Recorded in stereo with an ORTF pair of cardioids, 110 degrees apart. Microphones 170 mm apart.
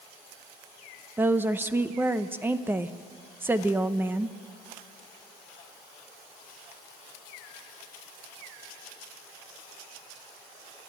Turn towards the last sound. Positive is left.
turn(degrees=-10)